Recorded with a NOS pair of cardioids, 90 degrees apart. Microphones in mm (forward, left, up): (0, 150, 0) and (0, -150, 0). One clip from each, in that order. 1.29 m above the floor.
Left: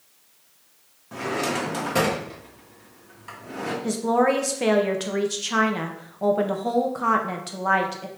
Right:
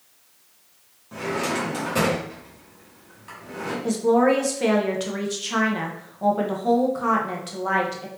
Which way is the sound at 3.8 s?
15° left.